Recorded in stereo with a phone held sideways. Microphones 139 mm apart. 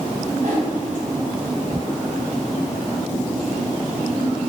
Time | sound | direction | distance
0.4 | a whoosh | 65° right (ahead or behind) | 3 m